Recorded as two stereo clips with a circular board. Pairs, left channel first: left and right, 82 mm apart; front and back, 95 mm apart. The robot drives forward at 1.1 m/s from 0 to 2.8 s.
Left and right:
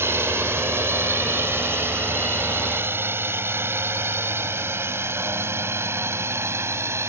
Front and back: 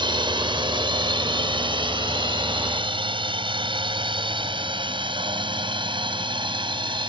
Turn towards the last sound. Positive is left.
turn(degrees=-150)